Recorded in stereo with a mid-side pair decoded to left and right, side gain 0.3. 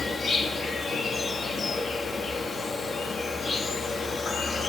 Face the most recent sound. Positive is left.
turn(degrees=65)